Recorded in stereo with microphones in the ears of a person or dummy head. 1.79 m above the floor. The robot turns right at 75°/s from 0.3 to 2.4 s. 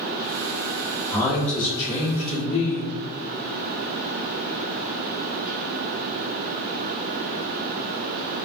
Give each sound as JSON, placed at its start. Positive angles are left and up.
{"t": 1.1, "sound": "a man speaking", "azimuth_deg": 10, "distance_m": 1.4}